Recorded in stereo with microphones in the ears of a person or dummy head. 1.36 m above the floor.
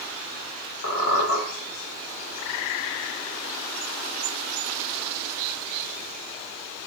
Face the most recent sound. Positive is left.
turn(degrees=55)  # may be behind; listen again after turning